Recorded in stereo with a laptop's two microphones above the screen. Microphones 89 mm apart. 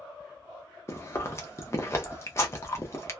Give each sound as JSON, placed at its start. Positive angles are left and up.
{"t": 0.9, "sound": "chewing", "side_deg": 30, "distance_m": 0.8}